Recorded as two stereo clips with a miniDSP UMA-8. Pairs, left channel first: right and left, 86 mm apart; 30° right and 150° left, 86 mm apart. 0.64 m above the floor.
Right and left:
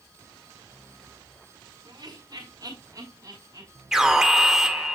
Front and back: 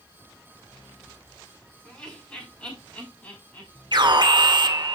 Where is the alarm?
175° left, 1.9 m.